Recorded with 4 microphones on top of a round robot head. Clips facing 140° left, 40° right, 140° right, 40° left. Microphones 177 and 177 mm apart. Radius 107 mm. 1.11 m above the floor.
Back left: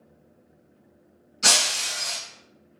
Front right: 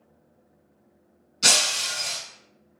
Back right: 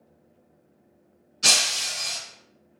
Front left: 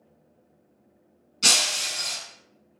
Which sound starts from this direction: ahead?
Breaking glass, at 1.4 s.